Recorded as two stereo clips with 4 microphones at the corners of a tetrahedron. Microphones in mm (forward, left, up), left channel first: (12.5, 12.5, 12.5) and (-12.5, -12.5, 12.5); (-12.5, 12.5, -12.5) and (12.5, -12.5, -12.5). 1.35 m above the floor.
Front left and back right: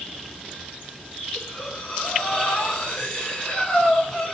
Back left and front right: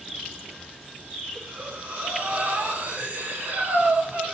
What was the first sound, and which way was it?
Breathing, 15° right.